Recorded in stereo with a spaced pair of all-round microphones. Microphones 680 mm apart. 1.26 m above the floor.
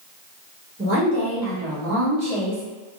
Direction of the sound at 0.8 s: 15° right (ahead or behind).